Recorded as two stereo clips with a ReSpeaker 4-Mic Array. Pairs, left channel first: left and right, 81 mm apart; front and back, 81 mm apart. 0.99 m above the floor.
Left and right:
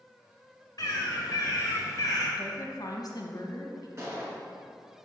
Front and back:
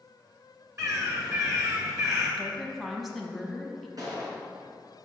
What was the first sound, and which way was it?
A bird, 135° left.